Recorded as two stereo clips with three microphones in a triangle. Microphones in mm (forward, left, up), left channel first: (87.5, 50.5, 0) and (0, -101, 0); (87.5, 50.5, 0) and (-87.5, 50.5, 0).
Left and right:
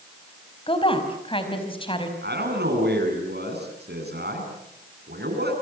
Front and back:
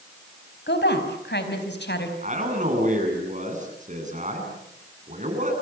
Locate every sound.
0.7 s a woman speaking: straight ahead, 4.5 m
2.2 s a man speaking: 135° right, 8 m